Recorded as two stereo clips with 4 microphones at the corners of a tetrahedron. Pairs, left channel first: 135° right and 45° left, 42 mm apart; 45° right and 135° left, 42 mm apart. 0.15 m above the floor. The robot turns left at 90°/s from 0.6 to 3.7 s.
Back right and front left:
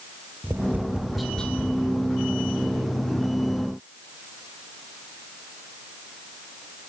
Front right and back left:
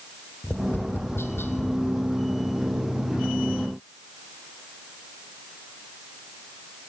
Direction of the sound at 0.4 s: 5° left.